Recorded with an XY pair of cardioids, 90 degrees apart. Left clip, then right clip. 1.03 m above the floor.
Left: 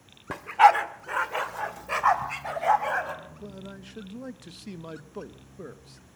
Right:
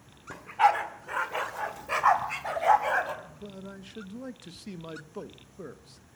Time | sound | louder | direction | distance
0.3 | a dog barking | left 6 dB | 60° left | 1.3 m
3.2 | a man speaking | left 1 dB | 5° left | 0.9 m